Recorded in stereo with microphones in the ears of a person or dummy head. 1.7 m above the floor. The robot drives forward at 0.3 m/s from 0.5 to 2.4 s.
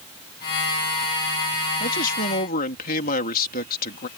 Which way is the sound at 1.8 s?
45° left (ahead or behind).